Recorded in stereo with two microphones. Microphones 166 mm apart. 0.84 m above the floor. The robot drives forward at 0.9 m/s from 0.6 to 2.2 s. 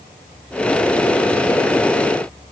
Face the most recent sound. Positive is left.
No sound to turn to.